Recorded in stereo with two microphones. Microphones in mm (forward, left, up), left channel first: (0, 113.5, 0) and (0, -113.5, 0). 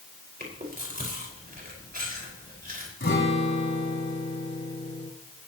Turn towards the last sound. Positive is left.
turn(degrees=55)  # may be behind; listen again after turning